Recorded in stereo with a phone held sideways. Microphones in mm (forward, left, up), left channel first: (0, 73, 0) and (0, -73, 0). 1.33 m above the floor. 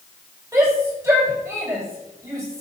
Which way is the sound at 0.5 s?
20° right (ahead or behind).